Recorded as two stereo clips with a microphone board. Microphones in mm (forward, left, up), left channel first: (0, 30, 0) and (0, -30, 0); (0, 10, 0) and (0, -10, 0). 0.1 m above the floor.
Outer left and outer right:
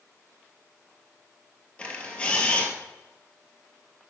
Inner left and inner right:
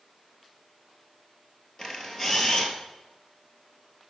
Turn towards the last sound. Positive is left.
turn(degrees=20)  # may be behind; listen again after turning